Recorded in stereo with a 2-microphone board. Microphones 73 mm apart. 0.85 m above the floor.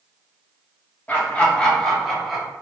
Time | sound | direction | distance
1.1 | laughter | 25° left (ahead or behind) | 1.2 m